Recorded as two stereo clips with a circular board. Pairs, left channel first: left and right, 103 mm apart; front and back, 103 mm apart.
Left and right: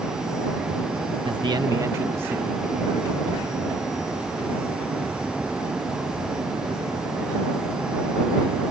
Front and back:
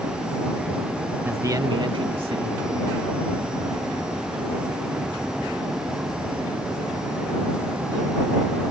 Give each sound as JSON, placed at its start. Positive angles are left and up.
{"t": 1.2, "sound": "a man speaking", "azimuth_deg": -115}